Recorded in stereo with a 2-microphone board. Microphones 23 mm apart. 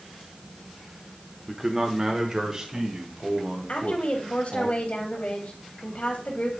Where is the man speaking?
20° right (ahead or behind), 1.1 m; by 4.7 s 30° right (ahead or behind), 3 m.